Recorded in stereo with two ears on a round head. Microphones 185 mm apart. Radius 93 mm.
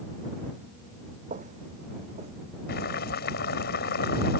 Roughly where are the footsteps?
Right.